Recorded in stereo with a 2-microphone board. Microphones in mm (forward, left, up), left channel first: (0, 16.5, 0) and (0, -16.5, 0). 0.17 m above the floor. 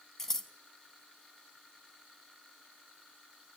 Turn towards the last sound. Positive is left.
turn(degrees=15)  # may be behind; listen again after turning